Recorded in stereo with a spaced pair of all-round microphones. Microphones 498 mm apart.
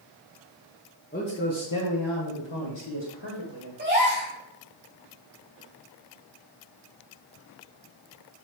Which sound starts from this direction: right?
A gasp, at 3.8 s.